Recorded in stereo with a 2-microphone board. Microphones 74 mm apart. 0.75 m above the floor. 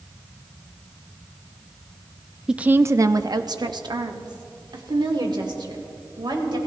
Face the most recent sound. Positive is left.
turn(degrees=-75)  # may be behind; listen again after turning